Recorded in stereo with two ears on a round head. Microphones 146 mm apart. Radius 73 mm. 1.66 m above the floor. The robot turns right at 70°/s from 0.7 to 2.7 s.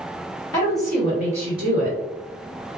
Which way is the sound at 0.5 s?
155° left.